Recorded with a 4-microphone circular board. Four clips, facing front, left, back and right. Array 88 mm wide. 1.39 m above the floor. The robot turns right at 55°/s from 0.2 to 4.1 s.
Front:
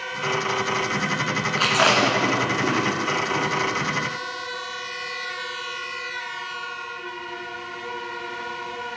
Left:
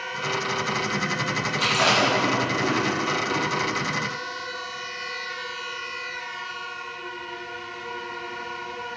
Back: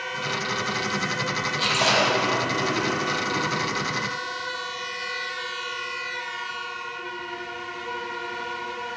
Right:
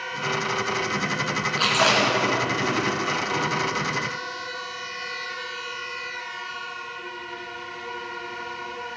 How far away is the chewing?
About 2.5 m.